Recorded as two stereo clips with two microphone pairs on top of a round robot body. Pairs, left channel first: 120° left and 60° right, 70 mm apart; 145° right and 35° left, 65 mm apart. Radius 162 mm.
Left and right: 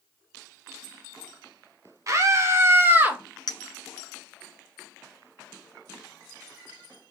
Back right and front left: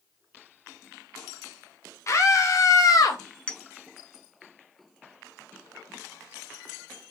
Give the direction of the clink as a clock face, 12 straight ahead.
7 o'clock.